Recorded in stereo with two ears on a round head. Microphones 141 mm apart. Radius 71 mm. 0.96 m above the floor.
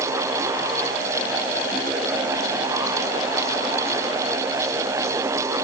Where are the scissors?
No scissors in this recording.